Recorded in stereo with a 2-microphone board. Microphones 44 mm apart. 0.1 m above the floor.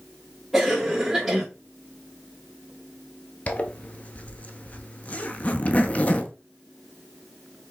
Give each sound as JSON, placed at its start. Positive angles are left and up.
{"t": 0.5, "sound": "a cough", "side_deg": 0, "distance_m": 2.0}
{"t": 3.5, "sound": "a zipper", "side_deg": 35, "distance_m": 0.6}